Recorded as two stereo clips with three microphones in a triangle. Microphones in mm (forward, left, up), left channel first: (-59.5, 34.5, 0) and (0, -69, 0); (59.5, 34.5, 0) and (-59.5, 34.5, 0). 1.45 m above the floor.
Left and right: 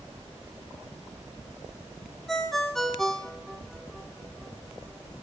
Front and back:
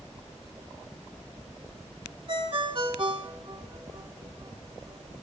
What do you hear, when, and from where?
2.3 s a ringtone: 155° right, 1.4 m